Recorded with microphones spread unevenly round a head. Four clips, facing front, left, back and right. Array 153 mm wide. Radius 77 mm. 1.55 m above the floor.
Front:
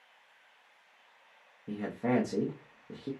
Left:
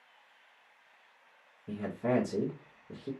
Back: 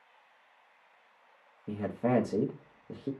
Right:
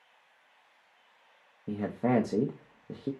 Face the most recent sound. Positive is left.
turn(degrees=-100)